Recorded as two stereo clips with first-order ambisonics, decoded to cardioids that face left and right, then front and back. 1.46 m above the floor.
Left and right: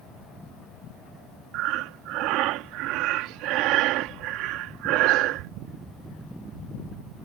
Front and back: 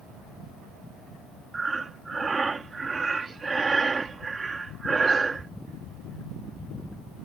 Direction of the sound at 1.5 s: 105° right.